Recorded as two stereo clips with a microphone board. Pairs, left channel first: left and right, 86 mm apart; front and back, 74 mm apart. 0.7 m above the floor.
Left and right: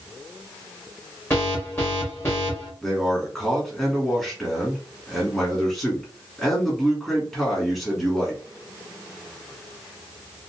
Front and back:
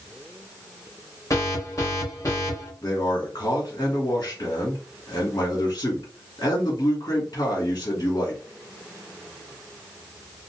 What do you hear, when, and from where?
1.3 s an alarm: 35° left, 2.5 m
2.8 s a man speaking: 10° left, 1.8 m